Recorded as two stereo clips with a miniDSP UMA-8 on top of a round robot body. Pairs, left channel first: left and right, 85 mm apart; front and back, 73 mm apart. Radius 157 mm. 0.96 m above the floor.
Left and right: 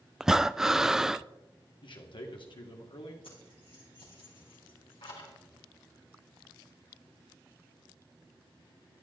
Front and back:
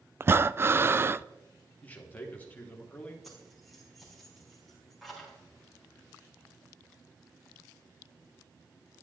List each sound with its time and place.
0.2 s breathing: 170° right, 0.7 m
1.8 s a man speaking: 70° left, 3 m
3.2 s keys jangling: 90° left, 6 m